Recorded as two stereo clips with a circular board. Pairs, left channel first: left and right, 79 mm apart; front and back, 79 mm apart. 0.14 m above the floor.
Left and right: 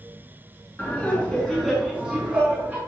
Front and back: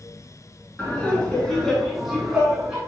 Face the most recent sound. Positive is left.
turn(degrees=-115)